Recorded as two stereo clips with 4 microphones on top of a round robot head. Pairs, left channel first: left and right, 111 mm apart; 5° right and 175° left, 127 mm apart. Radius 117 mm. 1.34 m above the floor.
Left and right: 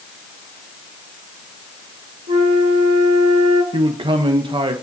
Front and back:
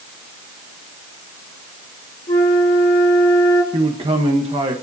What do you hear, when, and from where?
2.3 s a flute: 60° right, 1.7 m
3.7 s a man speaking: 130° right, 1.0 m